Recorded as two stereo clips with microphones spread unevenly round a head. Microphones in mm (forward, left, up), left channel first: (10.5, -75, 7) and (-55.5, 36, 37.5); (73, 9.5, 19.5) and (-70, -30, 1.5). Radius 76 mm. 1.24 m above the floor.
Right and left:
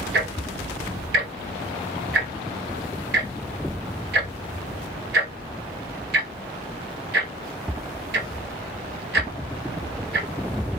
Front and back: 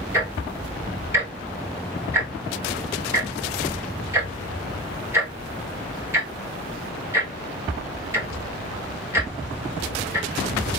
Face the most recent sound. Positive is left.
turn(degrees=120)